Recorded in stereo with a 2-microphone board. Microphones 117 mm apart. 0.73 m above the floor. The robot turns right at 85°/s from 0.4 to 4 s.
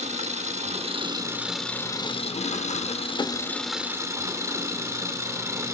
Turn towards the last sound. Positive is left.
turn(degrees=-155)